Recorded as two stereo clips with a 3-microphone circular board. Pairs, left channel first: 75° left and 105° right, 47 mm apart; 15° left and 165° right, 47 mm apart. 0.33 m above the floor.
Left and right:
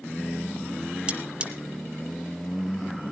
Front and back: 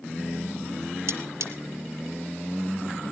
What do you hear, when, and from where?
1.1 s cutlery clinking: 170° right, 1.4 m